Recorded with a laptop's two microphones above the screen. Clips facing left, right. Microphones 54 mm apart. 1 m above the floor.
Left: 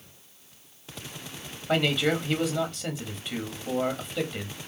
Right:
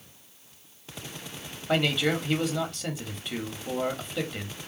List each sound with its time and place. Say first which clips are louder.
1.7 s a man speaking: left 1 dB; centre (ahead or behind), 1.6 m